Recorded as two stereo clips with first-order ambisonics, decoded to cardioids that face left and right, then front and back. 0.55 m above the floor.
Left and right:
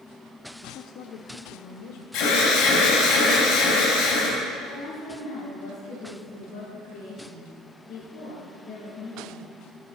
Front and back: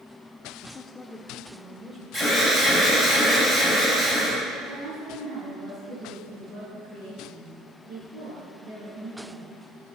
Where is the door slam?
No door slam in this recording.